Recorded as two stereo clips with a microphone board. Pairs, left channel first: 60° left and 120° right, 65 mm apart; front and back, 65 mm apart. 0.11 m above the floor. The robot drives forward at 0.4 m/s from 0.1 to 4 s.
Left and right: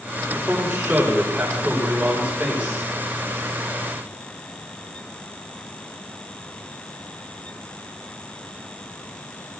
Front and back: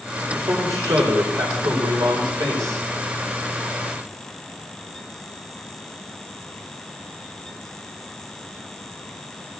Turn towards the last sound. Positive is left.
turn(degrees=165)